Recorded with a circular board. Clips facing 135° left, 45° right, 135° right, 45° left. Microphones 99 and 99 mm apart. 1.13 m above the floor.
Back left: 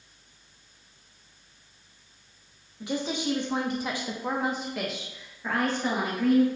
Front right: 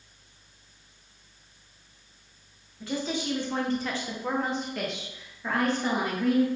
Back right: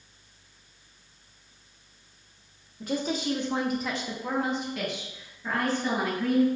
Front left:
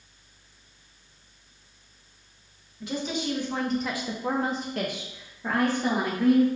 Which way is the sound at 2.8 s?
155° right.